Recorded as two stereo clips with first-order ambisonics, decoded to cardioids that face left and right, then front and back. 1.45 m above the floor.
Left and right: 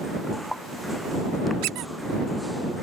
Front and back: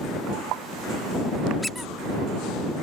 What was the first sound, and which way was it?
A squeak, 85° right.